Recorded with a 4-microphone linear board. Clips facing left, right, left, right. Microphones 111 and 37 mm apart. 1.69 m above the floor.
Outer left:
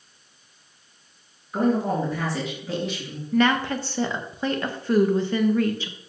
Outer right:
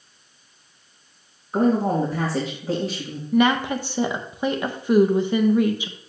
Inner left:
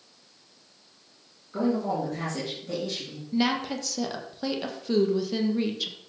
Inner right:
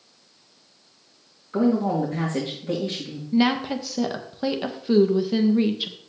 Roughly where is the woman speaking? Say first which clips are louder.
Outer right 2 dB, inner right 5 dB; centre.